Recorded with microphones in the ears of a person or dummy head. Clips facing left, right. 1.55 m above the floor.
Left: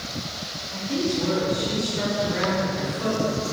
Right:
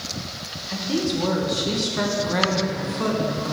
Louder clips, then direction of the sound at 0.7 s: Right 1 dB; 75° right (ahead or behind).